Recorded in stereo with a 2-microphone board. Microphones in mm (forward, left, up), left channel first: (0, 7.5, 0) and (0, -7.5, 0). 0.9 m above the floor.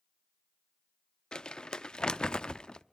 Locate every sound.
1.3 s crumpling: 75° left (ahead or behind), 0.6 m